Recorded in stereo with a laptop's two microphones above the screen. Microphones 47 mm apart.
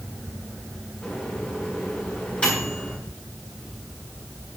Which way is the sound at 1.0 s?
25° left (ahead or behind).